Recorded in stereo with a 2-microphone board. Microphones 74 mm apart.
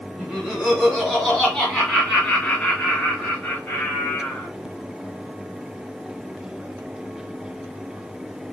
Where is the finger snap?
No finger snap in this recording.